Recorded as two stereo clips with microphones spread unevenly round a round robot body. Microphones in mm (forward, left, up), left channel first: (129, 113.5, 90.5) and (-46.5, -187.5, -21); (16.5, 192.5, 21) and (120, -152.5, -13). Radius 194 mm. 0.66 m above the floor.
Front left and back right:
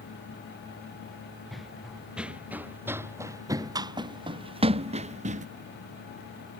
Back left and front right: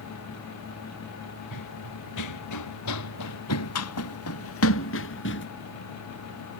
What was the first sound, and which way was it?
Running footsteps, 150° left.